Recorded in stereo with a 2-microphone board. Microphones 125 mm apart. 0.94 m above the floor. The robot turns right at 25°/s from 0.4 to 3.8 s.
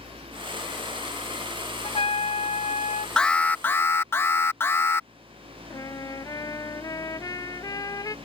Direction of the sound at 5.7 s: 30° left (ahead or behind).